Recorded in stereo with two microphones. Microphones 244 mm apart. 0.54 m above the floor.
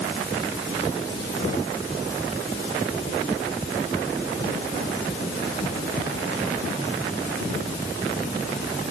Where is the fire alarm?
No fire alarm in this recording.